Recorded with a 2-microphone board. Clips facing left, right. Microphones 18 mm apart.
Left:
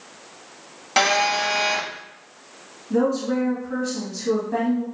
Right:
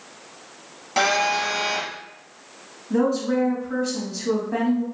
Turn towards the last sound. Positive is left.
turn(degrees=-10)  # may be behind; listen again after turning